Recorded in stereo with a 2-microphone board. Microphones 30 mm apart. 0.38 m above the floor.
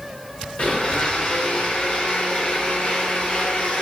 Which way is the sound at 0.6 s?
45° left (ahead or behind).